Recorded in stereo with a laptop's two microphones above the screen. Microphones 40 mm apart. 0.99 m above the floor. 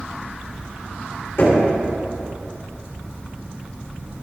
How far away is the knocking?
About 2.5 m.